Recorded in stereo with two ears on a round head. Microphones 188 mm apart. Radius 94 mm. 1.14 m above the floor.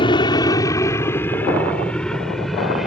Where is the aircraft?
25° left (ahead or behind); by 2.9 s centre (ahead or behind).